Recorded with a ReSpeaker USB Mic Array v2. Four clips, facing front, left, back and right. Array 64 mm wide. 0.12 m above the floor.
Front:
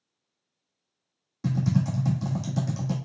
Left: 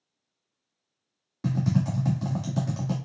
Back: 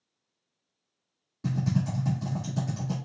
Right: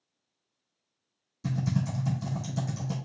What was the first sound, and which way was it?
Typing on a keyboard, 70° left.